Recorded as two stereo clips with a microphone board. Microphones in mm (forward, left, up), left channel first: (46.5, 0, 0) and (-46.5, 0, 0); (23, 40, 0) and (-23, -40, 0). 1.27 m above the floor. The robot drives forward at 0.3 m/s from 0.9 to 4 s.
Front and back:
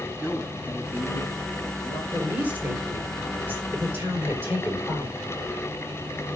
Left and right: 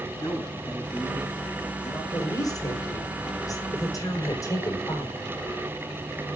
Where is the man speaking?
105° left, 8 m; by 2.0 s 110° left, 8 m.